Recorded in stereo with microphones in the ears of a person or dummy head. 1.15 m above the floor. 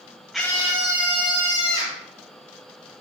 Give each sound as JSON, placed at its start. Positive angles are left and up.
{"t": 0.3, "sound": "a scream", "side_deg": -10, "distance_m": 0.6}